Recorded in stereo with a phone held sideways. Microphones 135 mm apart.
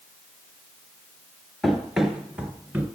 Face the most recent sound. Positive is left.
turn(degrees=-15)  # may be behind; listen again after turning